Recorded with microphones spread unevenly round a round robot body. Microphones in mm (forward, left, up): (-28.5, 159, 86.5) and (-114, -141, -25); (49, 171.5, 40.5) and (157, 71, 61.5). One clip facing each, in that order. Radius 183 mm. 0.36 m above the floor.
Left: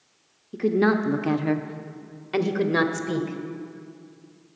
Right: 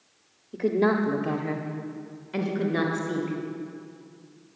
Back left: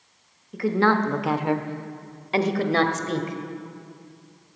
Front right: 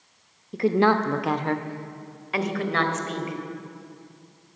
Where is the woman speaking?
40° right, 0.8 m; by 3.4 s 95° left, 1.9 m.